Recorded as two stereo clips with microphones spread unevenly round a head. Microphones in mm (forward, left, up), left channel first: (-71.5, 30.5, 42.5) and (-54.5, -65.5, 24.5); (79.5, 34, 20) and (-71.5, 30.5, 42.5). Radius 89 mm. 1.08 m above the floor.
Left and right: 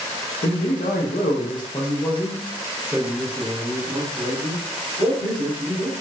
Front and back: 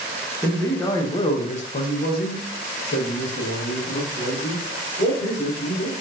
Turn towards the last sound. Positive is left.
turn(degrees=-35)